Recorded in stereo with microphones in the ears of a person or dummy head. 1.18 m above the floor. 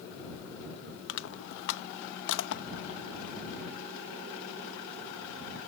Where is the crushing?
65° left (ahead or behind).